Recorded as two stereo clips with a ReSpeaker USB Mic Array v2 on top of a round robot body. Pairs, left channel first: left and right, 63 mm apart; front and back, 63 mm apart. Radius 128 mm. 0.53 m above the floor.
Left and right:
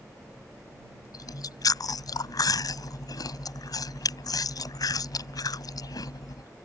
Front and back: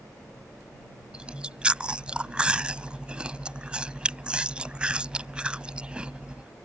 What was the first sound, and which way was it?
Chewing, 105° left.